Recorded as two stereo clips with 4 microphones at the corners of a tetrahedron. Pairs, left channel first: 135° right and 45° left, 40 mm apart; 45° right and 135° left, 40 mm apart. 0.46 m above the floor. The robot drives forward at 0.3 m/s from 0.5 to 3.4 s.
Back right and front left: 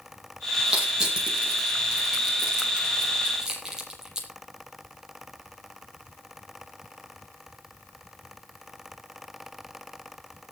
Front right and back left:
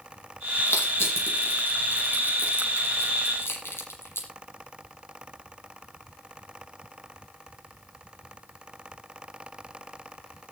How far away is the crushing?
About 8 m.